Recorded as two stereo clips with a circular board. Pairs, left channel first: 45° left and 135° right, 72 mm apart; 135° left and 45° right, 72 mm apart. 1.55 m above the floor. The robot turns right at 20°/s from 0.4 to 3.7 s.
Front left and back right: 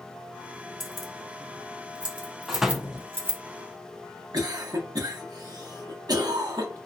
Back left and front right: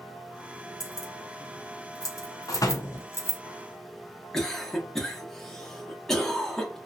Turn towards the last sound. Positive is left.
turn(degrees=-140)